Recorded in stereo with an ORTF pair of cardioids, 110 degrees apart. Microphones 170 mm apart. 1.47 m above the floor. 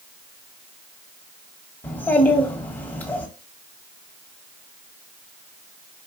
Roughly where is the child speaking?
Ahead.